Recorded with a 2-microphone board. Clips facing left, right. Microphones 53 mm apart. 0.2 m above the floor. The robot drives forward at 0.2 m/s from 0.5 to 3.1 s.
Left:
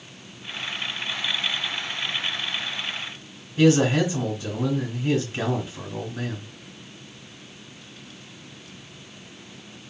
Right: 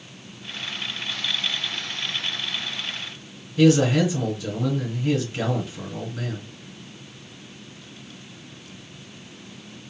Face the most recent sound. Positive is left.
turn(degrees=30)  # may be behind; listen again after turning